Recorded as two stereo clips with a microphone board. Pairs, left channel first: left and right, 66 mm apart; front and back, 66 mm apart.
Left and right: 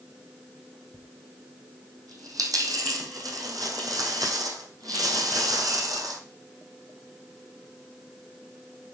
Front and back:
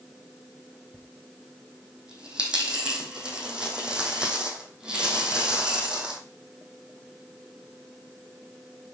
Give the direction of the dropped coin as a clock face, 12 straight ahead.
3 o'clock.